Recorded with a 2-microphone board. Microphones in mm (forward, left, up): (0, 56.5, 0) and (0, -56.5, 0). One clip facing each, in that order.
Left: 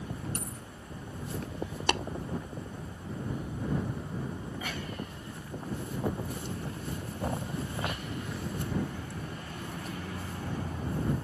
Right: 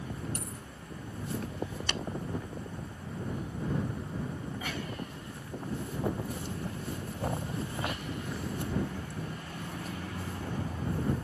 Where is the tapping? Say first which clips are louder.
Left 12 dB; 70° left (ahead or behind).